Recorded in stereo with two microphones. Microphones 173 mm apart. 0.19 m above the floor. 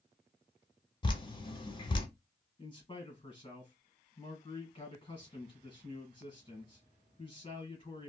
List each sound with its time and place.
1.0 s dripping: 30° left (ahead or behind), 0.6 m
2.6 s a man speaking: 30° left (ahead or behind), 1.5 m